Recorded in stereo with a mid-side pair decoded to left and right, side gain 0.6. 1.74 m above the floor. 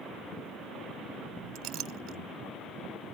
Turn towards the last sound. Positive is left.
turn(degrees=-65)